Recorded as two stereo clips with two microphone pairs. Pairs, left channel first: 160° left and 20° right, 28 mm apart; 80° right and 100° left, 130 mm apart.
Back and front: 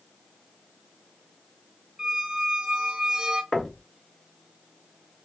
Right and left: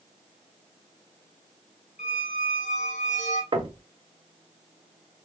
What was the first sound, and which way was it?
A squeak, 75° right.